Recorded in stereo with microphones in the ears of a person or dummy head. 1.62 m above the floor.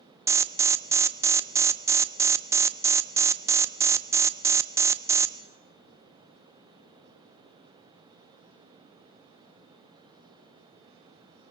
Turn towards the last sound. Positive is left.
turn(degrees=-15)  # may be behind; listen again after turning